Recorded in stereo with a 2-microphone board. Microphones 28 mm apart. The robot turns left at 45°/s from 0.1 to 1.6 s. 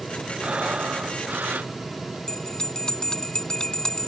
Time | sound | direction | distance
0.4 | breathing | 45° right | ?
2.3 | a bell | 30° left (ahead or behind) | ?